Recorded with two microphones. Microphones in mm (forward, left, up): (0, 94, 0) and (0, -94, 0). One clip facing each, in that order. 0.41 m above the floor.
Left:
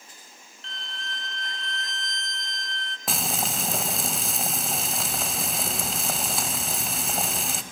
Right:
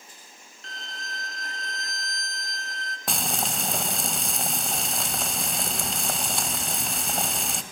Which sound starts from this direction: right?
A violin, at 0.6 s.